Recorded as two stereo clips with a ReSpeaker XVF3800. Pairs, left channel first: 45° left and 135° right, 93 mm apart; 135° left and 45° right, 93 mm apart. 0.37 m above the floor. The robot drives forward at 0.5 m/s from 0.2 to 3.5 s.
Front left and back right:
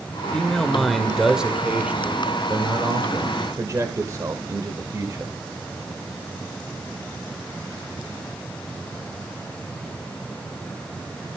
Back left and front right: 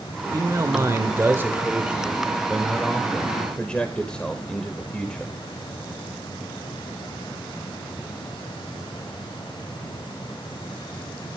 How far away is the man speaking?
About 1.5 m.